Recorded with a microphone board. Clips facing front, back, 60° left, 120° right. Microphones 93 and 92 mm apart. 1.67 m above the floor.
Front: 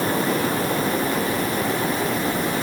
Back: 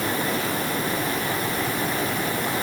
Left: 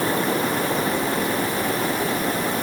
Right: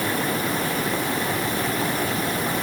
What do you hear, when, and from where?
Only background noise.